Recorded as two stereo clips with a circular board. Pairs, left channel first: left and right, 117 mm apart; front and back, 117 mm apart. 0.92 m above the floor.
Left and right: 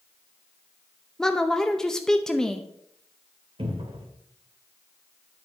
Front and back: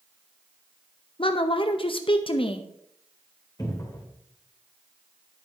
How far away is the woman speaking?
About 0.6 m.